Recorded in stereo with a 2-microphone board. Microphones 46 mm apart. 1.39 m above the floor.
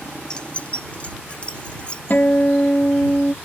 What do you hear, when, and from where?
0.3 s keys jangling: 20° left (ahead or behind); by 2.0 s 25° left (ahead or behind)
2.1 s a guitar: 45° left (ahead or behind)